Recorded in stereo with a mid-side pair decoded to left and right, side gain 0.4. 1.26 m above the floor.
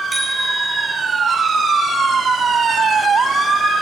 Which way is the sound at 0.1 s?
15° right.